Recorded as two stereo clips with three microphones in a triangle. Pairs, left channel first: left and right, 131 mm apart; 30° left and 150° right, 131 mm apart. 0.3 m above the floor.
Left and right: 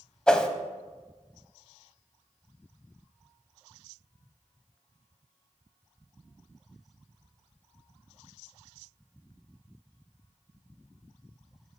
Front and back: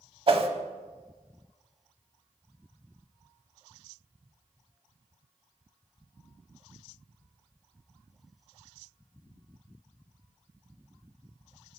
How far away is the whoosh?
About 0.5 m.